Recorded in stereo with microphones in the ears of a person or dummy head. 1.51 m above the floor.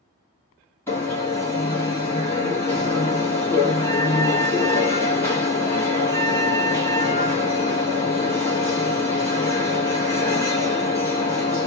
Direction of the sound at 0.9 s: 10° left (ahead or behind).